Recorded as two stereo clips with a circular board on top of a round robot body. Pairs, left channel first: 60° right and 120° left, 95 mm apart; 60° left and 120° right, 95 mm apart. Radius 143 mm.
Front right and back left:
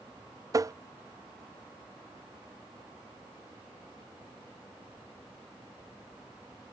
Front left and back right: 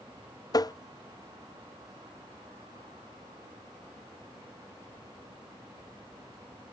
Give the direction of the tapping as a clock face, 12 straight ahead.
9 o'clock.